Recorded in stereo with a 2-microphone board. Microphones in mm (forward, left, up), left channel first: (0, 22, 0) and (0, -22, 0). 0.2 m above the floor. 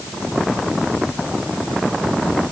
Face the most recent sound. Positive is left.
No sound to turn to.